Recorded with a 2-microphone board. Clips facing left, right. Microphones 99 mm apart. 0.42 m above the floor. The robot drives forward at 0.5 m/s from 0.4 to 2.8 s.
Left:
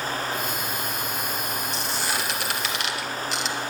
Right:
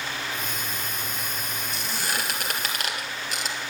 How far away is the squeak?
About 1.9 m.